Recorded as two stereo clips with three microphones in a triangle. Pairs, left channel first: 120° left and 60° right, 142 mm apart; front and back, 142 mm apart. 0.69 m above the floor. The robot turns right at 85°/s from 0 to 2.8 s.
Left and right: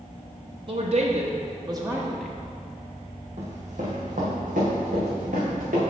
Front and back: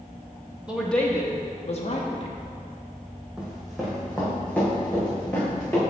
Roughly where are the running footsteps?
Right.